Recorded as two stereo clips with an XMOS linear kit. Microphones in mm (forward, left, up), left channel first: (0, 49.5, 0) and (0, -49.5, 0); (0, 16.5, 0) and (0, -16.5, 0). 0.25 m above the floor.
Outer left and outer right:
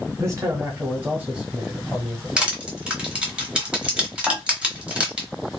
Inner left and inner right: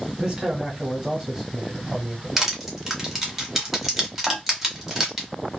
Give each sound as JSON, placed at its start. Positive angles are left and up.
{"t": 0.2, "sound": "a man speaking", "side_deg": -30, "distance_m": 1.4}
{"t": 2.4, "sound": "crushing", "side_deg": -10, "distance_m": 1.1}
{"t": 4.3, "sound": "dishes clattering", "side_deg": 0, "distance_m": 0.6}